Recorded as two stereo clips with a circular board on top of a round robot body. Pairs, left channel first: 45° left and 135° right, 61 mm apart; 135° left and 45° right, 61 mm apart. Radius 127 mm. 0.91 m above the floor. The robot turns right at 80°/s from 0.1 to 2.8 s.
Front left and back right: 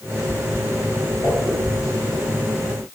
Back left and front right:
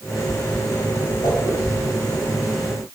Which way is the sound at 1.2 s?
110° left.